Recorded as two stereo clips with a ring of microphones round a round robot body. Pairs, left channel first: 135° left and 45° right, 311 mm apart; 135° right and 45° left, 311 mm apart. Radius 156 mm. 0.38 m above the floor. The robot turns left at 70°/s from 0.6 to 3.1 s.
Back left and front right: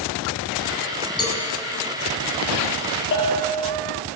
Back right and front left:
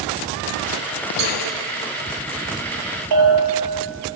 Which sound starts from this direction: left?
A bell, at 3.1 s.